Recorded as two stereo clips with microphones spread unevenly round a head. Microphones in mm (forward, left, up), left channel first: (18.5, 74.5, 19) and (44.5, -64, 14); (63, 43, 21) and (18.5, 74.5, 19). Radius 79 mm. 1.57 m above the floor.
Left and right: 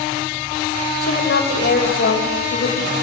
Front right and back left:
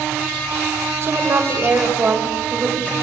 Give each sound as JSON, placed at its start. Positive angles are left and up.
{"t": 1.0, "sound": "a woman speaking", "azimuth_deg": 100, "distance_m": 6.0}